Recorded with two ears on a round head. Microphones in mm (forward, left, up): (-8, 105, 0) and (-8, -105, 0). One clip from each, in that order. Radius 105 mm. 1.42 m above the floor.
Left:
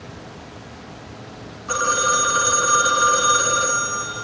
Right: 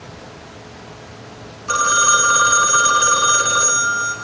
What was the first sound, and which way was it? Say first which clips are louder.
A phone ringing: right 4 dB; 35° right (ahead or behind).